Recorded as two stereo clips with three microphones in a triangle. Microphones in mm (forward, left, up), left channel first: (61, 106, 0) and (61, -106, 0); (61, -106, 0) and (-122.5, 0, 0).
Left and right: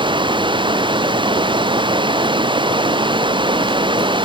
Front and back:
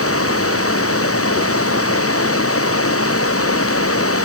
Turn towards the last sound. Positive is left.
turn(degrees=-20)